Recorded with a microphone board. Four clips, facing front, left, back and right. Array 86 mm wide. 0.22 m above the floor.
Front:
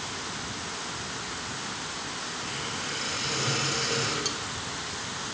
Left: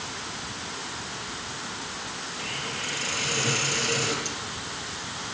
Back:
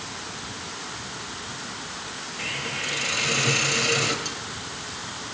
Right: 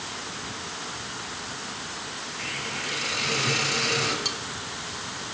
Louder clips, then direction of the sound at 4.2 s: Right 1 dB, even; 75° right.